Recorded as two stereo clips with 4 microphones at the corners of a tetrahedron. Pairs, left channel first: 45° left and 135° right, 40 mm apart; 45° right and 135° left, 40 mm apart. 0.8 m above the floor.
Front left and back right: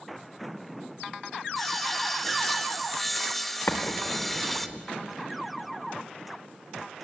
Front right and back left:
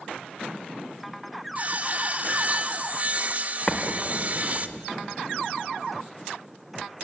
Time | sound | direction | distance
1.6 | sawing | 125° left | 1.2 m
3.7 | an explosion | 30° left | 1.7 m